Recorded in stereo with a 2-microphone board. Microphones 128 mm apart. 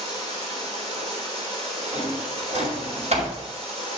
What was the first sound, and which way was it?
Running water, 60° right (ahead or behind).